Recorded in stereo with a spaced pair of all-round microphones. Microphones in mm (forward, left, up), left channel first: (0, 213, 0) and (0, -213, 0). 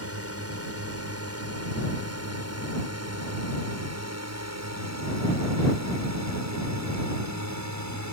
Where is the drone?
35° right (ahead or behind); by 8.1 s 40° right (ahead or behind).